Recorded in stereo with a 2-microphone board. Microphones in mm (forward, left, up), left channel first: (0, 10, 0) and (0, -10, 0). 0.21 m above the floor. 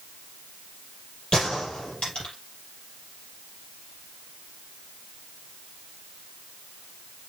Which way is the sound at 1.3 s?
55° left (ahead or behind).